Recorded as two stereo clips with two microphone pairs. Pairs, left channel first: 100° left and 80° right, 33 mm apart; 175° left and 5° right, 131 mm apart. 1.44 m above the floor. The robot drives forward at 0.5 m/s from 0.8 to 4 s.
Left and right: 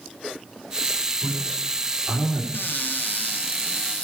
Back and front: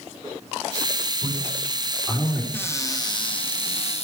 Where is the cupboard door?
105° left, 0.8 m; by 4.0 s 140° left, 1.2 m.